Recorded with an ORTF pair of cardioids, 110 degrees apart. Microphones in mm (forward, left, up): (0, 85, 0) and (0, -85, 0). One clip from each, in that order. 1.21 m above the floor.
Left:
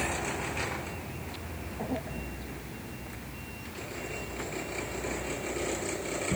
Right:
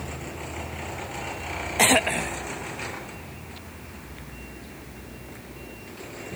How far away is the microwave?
No microwave in this recording.